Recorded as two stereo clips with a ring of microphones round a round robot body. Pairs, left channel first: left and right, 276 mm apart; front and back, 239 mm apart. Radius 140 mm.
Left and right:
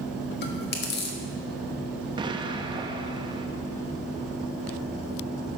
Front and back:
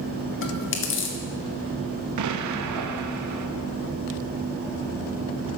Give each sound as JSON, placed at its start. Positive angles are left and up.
{"t": 0.4, "sound": "chewing", "azimuth_deg": 35, "distance_m": 1.5}
{"t": 2.2, "sound": "an explosion", "azimuth_deg": -165, "distance_m": 0.7}